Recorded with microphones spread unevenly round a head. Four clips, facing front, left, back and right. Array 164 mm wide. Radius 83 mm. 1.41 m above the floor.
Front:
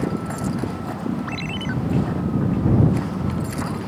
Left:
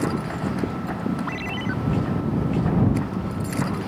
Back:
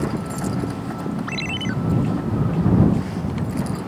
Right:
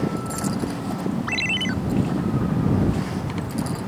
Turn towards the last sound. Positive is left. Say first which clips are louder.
# right 1 dB, back 1 dB
turn(degrees=-120)